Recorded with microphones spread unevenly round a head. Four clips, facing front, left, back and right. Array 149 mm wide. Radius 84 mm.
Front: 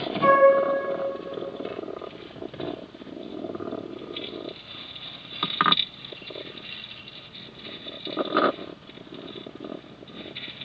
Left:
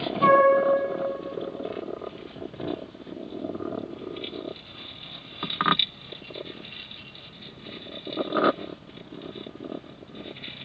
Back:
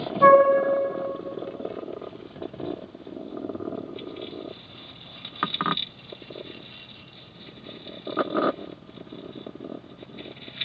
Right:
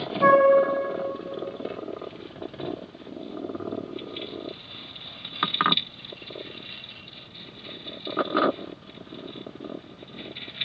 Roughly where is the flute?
Behind.